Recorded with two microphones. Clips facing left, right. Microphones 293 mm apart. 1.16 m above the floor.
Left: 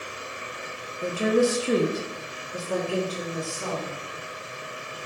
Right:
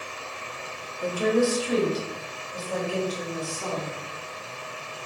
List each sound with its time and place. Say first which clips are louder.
1.0 s a woman speaking: left 1 dB; 20° left (ahead or behind), 0.6 m; by 4.0 s 50° left (ahead or behind), 1.9 m